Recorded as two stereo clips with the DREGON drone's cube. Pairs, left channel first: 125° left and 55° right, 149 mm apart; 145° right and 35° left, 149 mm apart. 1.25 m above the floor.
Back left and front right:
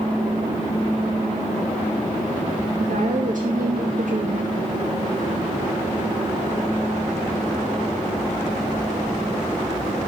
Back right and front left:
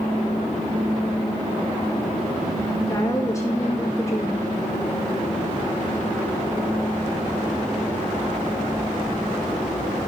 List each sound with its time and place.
2.8 s a woman speaking: 80° right, 2 m